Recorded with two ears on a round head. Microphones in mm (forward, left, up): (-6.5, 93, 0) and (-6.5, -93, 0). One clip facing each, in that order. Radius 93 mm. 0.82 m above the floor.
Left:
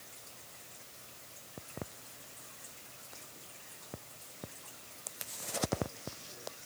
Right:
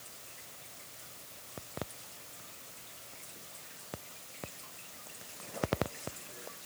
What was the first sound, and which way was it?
Only background noise.